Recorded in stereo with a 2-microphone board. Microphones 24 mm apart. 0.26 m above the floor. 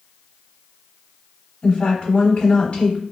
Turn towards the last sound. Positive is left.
turn(degrees=40)  # may be behind; listen again after turning